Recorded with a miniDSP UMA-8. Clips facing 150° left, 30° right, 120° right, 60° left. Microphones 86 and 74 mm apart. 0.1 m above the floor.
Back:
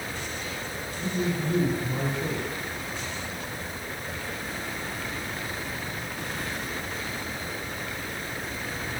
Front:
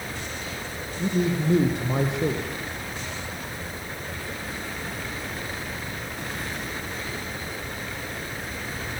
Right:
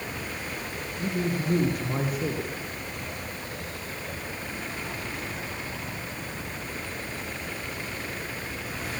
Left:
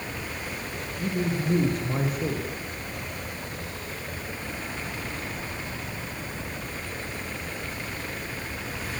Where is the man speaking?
30° right, 5 m.